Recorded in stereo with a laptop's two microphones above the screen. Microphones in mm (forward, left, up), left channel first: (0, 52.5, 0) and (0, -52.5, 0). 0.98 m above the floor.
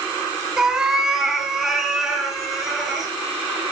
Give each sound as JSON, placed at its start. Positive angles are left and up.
{"t": 0.6, "sound": "a cat meowing", "side_deg": -5, "distance_m": 1.6}